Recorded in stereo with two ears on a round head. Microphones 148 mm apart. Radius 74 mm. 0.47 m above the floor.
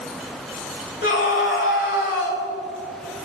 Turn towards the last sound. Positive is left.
turn(degrees=65)  # may be behind; listen again after turning